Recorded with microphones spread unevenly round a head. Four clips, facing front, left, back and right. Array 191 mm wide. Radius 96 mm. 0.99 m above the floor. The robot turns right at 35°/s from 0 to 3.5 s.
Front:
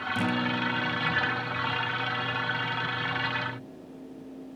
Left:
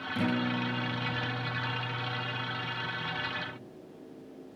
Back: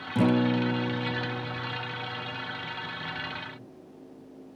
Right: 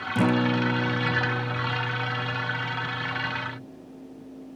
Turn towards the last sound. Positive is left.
turn(degrees=-20)